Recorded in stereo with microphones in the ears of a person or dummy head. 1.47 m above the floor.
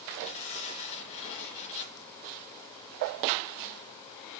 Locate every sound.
0.1 s tearing paper: 35° left (ahead or behind), 3.5 m